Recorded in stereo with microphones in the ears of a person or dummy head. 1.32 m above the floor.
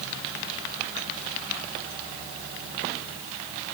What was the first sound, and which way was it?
Only background noise.